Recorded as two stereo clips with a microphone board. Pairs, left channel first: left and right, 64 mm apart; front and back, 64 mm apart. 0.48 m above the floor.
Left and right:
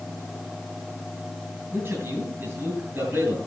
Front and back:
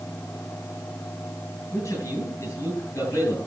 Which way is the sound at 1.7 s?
40° right.